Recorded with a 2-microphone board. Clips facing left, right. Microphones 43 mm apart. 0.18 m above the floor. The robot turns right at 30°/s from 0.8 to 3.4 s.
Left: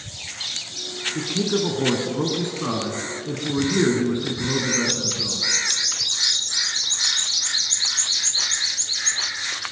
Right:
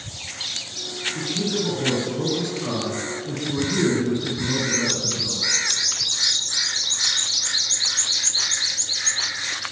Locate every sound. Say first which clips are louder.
1.1 s a man speaking: left 3 dB; 80° left, 2 m; by 5.4 s 150° left, 2 m